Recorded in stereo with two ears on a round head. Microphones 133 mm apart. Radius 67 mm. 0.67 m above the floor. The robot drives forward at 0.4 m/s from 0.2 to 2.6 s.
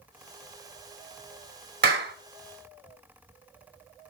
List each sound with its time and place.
1.8 s a clap: 70° right (ahead or behind), 1.3 m; by 2.1 s 75° right (ahead or behind), 1.3 m